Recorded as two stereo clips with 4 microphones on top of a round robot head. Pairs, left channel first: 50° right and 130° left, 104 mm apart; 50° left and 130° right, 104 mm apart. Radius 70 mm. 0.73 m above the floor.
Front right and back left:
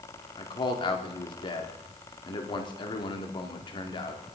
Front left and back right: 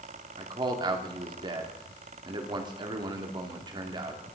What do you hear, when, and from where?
0.4 s a man speaking: 90° right, 2 m